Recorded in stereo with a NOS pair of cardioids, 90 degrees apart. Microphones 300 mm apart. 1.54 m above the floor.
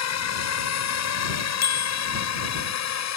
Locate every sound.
0.0 s a drone: 60° left; by 3.2 s 65° left
1.6 s a bicycle bell: 60° left